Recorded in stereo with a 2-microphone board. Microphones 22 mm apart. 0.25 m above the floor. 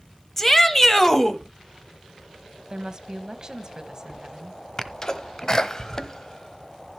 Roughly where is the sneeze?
Left.